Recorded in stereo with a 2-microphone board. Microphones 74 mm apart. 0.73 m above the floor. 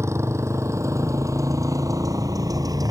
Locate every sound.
0.0 s a motorcycle: 40° right (ahead or behind); by 2.9 s 60° right (ahead or behind)